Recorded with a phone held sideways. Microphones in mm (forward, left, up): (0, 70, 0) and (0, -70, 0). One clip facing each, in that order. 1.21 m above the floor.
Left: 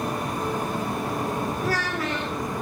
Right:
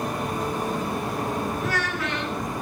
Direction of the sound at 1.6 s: 35° left (ahead or behind).